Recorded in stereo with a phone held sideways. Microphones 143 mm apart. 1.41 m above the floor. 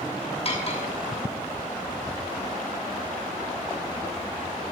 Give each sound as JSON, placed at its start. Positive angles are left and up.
{"t": 0.5, "sound": "cutlery clinking", "side_deg": 45, "distance_m": 5.5}